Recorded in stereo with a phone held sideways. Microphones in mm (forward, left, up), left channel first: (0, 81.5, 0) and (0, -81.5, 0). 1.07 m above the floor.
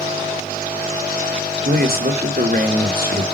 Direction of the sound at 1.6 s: 65° right (ahead or behind).